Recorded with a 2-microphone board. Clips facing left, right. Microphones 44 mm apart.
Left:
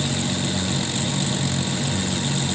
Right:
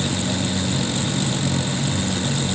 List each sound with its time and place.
Only background noise.